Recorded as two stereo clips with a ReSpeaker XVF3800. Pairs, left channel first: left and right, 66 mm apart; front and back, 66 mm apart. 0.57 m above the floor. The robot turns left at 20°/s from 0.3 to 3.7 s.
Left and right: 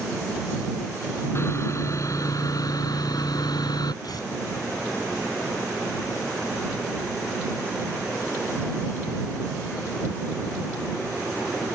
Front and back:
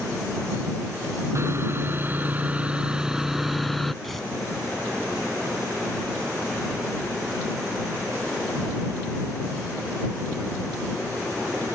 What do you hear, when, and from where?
1.4 s sawing: 135° left; by 3.9 s 90° left
4.0 s tearing paper: 90° left